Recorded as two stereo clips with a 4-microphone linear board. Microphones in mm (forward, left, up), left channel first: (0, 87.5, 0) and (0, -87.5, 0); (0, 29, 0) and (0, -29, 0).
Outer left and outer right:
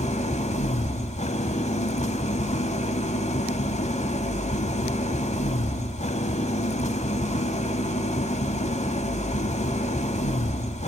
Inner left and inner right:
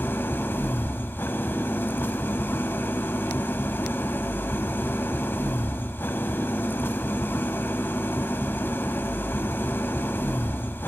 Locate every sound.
0.0 s an engine running: 40° left (ahead or behind), 1.3 m